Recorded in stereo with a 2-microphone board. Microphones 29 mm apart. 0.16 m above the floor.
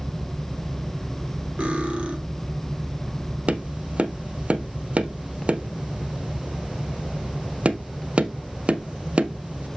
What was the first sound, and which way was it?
Cutlery clinking, 45° right (ahead or behind).